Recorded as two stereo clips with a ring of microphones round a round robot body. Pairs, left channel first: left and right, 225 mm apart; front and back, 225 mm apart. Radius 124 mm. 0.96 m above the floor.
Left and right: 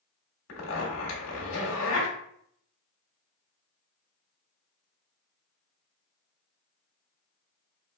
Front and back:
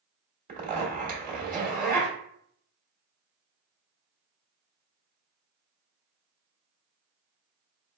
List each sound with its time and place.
0.5 s a zipper: 125° left, 1.4 m